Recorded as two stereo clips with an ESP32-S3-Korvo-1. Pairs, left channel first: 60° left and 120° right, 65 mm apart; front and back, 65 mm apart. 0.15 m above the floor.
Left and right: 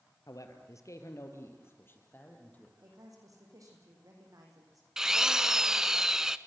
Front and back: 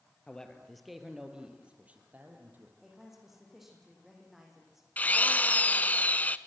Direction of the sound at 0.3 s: 75° left.